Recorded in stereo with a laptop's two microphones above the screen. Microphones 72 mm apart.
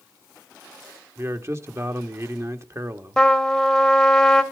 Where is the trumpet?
5° left (ahead or behind), 1.3 m.